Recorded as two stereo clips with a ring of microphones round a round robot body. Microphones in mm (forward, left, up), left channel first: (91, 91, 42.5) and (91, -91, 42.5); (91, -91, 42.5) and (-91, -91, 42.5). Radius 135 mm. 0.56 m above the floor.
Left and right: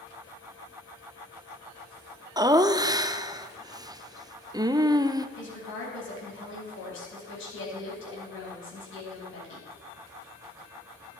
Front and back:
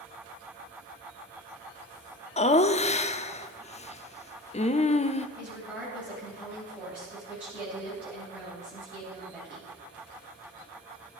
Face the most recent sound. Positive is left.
turn(degrees=95)